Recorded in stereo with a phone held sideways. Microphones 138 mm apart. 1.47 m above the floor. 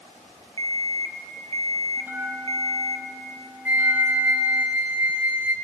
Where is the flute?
10° right (ahead or behind), 1.5 m.